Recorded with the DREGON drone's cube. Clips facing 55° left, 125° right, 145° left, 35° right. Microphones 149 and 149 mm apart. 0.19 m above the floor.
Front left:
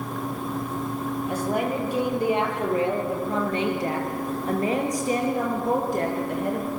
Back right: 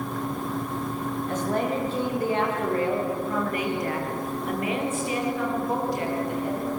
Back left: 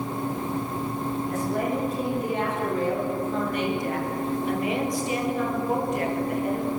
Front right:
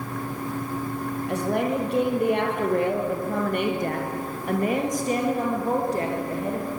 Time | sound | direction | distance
1.3 | a woman speaking | 25° right | 5.5 m